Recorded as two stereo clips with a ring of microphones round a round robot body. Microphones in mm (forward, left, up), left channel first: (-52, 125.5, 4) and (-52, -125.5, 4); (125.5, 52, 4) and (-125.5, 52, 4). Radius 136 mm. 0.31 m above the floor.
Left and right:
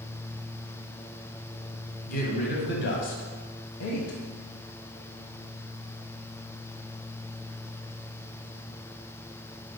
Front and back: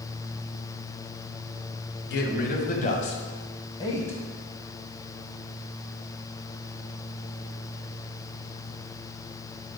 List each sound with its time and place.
2.1 s a man speaking: 35° left, 1.7 m; by 4.2 s 80° left, 1.7 m